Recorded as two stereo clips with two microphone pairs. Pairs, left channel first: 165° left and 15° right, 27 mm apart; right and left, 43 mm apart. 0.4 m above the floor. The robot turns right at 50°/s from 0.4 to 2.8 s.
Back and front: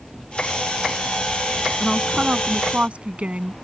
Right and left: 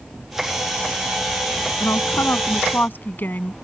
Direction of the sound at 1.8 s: 100° right.